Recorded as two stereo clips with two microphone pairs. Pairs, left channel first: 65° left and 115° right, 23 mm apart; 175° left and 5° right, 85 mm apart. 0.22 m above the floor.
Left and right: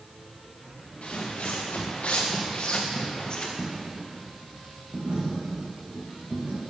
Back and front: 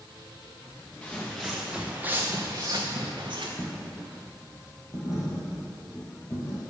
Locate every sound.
1.0 s footsteps: 100° left, 1.8 m; by 3.5 s 10° left, 1.9 m
3.6 s a dropped coin: 135° right, 2.5 m